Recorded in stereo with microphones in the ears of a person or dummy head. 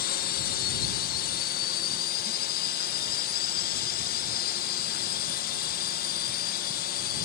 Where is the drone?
55° left (ahead or behind).